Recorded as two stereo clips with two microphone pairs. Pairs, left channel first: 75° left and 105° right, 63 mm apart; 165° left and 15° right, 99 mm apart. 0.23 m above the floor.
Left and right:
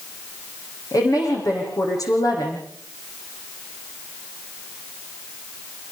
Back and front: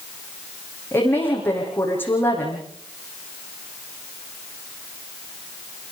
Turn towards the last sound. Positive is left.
turn(degrees=95)